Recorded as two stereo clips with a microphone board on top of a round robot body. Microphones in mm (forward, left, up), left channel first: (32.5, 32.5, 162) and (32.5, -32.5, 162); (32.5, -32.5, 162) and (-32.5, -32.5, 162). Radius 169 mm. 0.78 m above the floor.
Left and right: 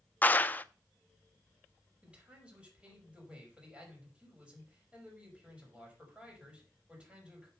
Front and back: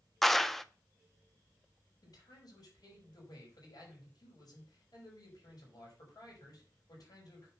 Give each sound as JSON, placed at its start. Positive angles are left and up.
{"t": 0.2, "sound": "a clap", "azimuth_deg": 80, "distance_m": 0.6}
{"t": 2.0, "sound": "a man speaking", "azimuth_deg": -15, "distance_m": 4.5}